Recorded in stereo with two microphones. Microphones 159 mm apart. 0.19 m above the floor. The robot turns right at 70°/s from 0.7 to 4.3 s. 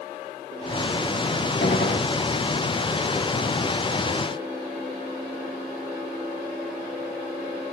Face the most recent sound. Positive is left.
turn(degrees=-90)